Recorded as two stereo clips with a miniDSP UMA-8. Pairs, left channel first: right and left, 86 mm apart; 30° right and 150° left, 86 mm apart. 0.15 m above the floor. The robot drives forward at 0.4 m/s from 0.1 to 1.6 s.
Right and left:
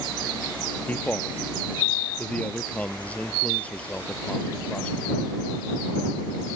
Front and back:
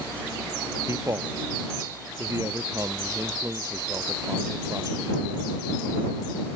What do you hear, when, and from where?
0.9 s a man speaking: 160° right